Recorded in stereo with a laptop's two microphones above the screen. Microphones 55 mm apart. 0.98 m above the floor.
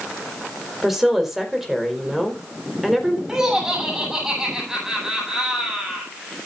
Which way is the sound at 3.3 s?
10° right (ahead or behind).